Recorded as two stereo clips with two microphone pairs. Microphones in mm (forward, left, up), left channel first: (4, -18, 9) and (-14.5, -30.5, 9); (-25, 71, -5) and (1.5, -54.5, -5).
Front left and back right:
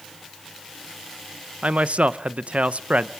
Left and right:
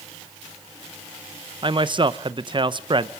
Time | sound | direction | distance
1.6 | a man speaking | 130° right | 0.5 m